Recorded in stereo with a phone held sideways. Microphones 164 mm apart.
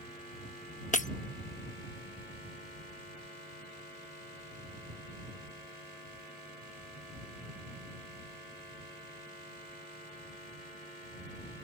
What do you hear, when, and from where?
0.9 s breaking glass: 50° left (ahead or behind)